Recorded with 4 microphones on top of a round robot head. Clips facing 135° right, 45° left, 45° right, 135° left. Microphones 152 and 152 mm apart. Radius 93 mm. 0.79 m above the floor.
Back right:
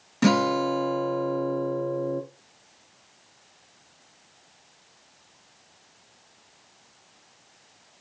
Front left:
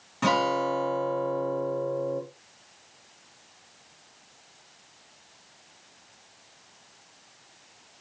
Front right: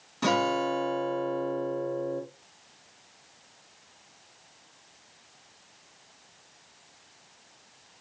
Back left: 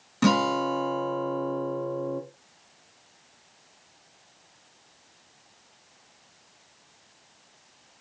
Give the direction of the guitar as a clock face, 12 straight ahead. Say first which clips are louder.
Back right 3 dB, back left 3 dB; 6 o'clock.